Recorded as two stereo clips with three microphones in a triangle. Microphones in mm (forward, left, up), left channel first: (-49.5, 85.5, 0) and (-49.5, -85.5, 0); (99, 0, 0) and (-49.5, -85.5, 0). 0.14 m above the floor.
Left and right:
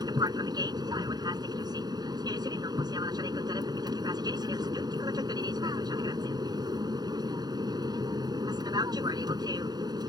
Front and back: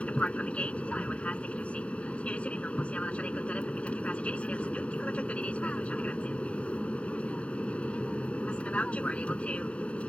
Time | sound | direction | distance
0.0 | an aircraft | 45° right | ?